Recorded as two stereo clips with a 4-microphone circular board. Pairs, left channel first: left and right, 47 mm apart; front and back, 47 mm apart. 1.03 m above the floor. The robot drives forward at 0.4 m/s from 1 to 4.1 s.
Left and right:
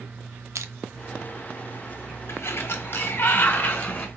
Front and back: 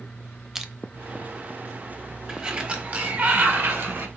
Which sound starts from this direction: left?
A sliding door, at 2.3 s.